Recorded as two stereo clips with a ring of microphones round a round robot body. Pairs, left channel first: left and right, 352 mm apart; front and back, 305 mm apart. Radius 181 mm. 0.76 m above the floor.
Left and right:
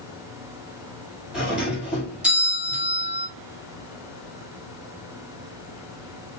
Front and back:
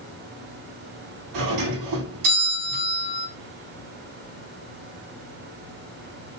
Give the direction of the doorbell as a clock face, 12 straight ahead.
6 o'clock.